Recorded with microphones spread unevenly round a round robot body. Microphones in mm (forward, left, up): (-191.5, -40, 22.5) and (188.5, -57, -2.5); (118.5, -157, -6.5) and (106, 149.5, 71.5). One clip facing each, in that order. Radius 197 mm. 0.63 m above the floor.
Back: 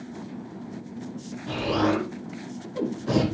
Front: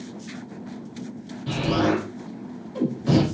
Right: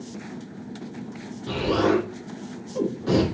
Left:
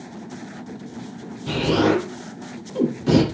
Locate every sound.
1.5 s an explosion: 45° left, 8.5 m